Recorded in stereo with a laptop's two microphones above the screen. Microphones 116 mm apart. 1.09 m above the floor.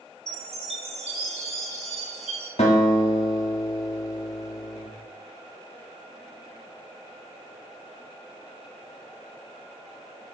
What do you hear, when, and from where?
0.3 s a chime: 70° right (ahead or behind), 3.5 m
2.6 s a guitar: 75° left (ahead or behind), 3 m